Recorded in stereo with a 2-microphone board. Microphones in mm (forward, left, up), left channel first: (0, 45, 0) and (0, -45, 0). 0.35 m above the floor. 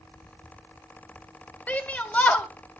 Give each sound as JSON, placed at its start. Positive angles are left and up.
{"t": 1.7, "sound": "a shout", "side_deg": 15, "distance_m": 1.6}